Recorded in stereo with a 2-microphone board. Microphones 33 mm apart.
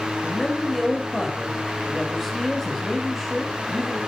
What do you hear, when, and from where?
0.2 s a man speaking: centre (ahead or behind), 2.5 m